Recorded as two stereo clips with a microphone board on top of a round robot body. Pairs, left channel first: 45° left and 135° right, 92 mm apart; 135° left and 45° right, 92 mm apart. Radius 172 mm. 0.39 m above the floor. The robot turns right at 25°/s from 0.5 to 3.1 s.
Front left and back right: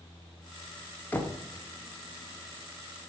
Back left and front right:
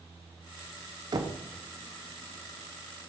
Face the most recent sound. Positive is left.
turn(degrees=25)